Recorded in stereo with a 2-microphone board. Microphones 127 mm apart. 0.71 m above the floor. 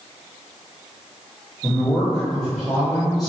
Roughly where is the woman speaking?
Centre.